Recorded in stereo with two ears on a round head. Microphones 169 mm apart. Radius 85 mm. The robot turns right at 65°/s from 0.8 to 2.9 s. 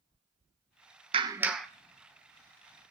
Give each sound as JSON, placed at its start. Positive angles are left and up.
{"t": 1.1, "sound": "a clap", "azimuth_deg": -30, "distance_m": 1.3}